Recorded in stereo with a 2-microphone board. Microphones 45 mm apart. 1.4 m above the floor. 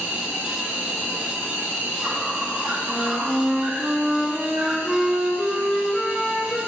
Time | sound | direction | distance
0.0 | an insect | 65° right (ahead or behind) | 4.5 m
2.9 | a flute | 10° right (ahead or behind) | 2.5 m